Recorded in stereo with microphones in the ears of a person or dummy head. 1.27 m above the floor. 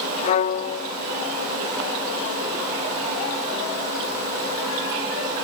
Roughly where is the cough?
I don't hear a cough.